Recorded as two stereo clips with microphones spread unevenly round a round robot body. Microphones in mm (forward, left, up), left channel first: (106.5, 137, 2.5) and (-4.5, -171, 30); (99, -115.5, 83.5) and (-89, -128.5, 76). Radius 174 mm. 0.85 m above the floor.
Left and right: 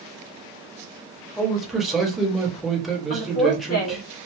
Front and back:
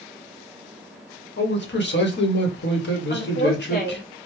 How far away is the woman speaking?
About 1.5 m.